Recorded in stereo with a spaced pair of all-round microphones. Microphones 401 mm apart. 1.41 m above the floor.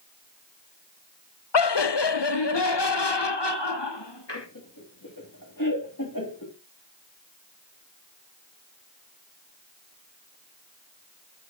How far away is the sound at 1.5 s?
About 0.6 m.